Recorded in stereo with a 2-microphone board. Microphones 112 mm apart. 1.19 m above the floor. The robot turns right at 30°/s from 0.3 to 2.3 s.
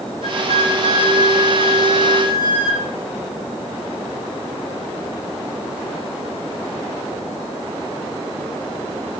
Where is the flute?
75° left, 7.5 m; by 2.9 s 135° left, 7.5 m.